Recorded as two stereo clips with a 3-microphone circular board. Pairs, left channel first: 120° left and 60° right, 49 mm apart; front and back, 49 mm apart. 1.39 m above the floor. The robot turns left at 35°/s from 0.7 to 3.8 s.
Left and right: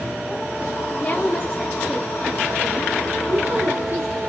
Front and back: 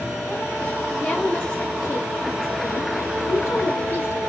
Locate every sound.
1.0 s a woman speaking: 70° left, 1.0 m; by 4.2 s 30° right, 1.0 m